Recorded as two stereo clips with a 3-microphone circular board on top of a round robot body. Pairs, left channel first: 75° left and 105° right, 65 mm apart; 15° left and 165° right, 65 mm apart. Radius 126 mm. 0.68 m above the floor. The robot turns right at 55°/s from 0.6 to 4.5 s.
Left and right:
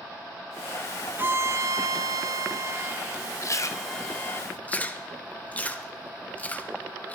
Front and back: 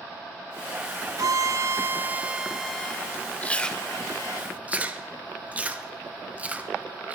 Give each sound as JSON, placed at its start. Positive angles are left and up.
{"t": 1.2, "sound": "a violin", "azimuth_deg": -155, "distance_m": 0.6}
{"t": 3.4, "sound": "chewing", "azimuth_deg": 75, "distance_m": 1.1}